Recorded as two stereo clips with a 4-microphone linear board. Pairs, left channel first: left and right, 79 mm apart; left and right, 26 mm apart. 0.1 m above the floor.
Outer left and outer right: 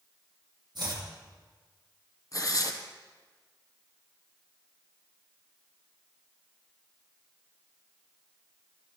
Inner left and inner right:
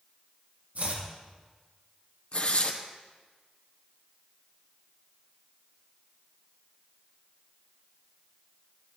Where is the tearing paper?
50° left (ahead or behind), 1.6 m.